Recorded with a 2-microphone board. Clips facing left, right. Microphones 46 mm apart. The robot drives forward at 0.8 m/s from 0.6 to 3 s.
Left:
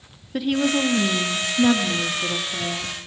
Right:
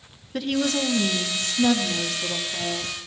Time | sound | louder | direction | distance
0.3 | a woman speaking | left 3 dB | 10° left (ahead or behind) | 1.1 m